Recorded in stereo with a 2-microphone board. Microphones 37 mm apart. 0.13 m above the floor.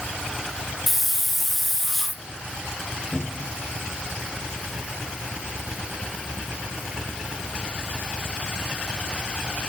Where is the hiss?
Centre (ahead or behind), 1.1 m.